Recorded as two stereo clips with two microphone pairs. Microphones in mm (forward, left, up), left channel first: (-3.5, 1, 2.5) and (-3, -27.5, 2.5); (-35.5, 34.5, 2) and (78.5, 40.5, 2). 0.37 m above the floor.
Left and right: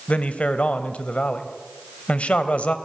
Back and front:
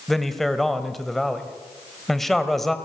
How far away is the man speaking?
About 2 m.